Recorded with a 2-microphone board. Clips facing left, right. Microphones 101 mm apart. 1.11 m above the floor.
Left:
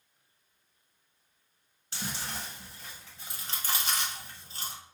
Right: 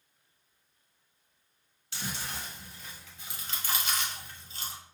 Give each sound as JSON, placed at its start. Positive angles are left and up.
{"t": 1.9, "sound": "chewing", "side_deg": 40, "distance_m": 1.1}